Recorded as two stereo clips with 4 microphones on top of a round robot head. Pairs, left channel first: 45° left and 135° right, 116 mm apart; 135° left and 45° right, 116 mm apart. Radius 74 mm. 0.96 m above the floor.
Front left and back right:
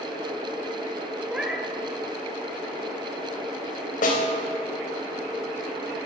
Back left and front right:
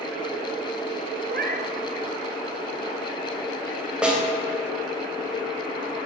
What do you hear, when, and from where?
1.3 s a cat meowing: 50° right, 1.2 m
4.0 s a snare drum: 35° left, 3 m